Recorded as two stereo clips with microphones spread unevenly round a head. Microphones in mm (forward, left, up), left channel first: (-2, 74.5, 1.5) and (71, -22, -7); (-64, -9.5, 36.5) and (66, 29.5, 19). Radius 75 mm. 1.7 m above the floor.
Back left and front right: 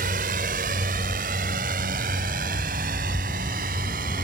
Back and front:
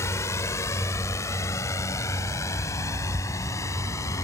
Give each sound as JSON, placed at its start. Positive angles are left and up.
{"t": 0.0, "sound": "a drone", "azimuth_deg": -90}